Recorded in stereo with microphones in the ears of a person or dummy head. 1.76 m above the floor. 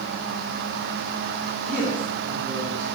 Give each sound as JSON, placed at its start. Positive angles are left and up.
{"t": 1.6, "sound": "a woman speaking", "side_deg": 5, "distance_m": 3.5}